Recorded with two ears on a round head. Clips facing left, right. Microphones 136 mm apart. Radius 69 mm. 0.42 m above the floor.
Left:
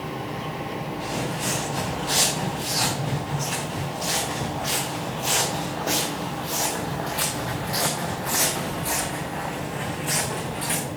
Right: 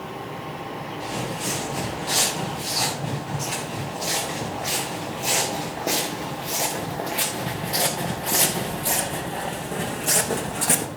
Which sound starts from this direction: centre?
Footsteps, at 1.0 s.